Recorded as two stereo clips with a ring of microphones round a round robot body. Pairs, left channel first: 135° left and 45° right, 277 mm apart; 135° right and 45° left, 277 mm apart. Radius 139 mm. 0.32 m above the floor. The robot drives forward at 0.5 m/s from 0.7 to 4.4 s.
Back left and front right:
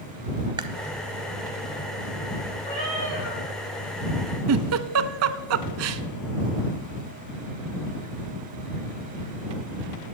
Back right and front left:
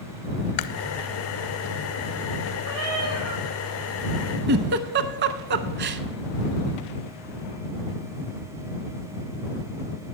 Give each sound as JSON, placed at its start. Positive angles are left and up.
{"t": 0.6, "sound": "chewing", "azimuth_deg": -120, "distance_m": 0.5}
{"t": 2.6, "sound": "a cat meowing", "azimuth_deg": 70, "distance_m": 7.0}
{"t": 4.5, "sound": "a giggle", "azimuth_deg": -10, "distance_m": 0.5}